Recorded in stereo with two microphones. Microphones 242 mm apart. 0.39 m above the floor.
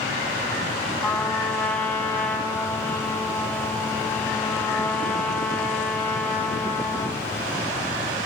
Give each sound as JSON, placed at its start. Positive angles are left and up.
{"t": 1.0, "sound": "a trumpet", "side_deg": 5, "distance_m": 2.0}